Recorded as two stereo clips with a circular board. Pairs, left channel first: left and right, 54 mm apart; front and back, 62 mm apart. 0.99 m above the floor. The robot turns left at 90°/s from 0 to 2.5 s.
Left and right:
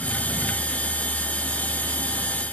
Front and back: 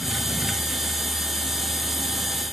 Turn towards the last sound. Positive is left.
No sound to turn to.